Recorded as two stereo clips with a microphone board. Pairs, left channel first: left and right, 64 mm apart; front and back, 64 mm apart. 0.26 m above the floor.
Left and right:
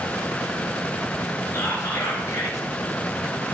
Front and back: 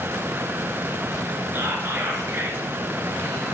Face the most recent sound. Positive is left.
turn(degrees=125)